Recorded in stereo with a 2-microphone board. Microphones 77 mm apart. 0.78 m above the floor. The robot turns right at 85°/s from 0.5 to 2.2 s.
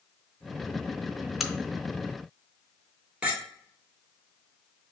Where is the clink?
15° right (ahead or behind), 1.4 m.